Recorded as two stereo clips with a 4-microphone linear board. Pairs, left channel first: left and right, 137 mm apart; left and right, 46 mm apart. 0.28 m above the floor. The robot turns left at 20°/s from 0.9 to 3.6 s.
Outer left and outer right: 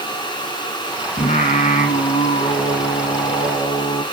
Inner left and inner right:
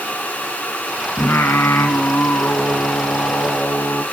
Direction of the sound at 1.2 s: 95° left.